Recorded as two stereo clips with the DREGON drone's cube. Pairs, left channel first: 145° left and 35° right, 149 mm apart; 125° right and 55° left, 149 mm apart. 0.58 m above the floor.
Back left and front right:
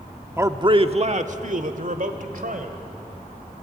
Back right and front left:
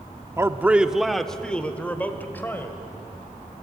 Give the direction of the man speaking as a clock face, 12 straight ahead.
11 o'clock.